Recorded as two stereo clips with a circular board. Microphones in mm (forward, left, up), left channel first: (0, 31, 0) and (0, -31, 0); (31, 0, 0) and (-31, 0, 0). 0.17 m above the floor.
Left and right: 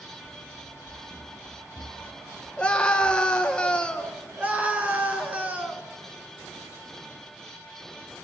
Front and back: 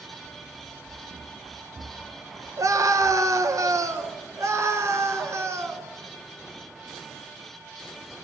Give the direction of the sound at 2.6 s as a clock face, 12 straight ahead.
7 o'clock.